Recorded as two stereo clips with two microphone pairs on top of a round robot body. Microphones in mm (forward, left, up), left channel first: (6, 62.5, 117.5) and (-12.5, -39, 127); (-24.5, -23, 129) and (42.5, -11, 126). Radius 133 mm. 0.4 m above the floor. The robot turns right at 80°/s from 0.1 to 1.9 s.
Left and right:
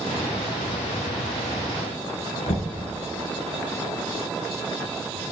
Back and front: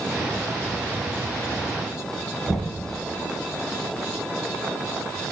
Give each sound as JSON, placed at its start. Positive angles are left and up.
{"t": 2.5, "sound": "knocking", "azimuth_deg": 95, "distance_m": 2.5}